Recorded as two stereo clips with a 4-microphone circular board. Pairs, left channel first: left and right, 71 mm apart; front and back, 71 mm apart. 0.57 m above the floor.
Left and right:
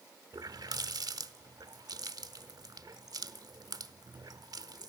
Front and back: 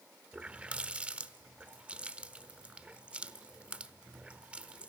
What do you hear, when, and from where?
0.3 s a running tap: 105° right, 1.0 m